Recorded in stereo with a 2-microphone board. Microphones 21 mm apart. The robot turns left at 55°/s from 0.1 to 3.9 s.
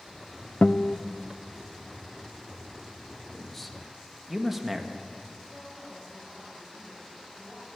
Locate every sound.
0.6 s a guitar: 70° left (ahead or behind), 0.7 m; by 1.0 s 55° left (ahead or behind), 0.7 m
3.3 s a man speaking: 20° left (ahead or behind), 2 m; by 5.0 s 10° right (ahead or behind), 2 m
5.4 s a woman speaking: 65° left (ahead or behind), 9.5 m